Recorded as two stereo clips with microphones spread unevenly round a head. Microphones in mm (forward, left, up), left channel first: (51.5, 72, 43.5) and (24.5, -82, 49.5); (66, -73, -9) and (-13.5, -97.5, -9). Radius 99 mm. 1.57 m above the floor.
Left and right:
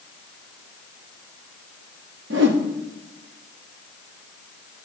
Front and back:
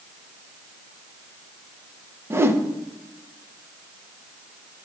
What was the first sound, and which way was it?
A whoosh, 105° right.